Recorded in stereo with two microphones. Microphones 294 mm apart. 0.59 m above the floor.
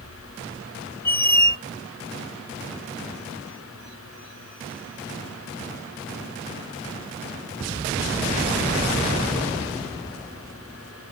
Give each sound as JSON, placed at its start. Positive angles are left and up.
{"t": 1.1, "sound": "a squeak", "side_deg": 30, "distance_m": 0.5}